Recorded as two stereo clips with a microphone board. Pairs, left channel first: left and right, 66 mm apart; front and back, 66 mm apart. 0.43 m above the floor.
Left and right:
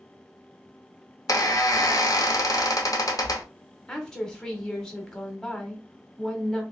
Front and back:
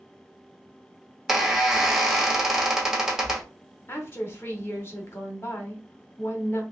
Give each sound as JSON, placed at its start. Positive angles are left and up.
{"t": 1.3, "sound": "a squeak", "azimuth_deg": 100, "distance_m": 0.7}
{"t": 3.9, "sound": "a woman speaking", "azimuth_deg": 20, "distance_m": 0.9}